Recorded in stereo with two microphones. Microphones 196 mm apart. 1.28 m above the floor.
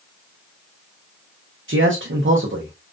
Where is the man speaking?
85° right, 0.9 m.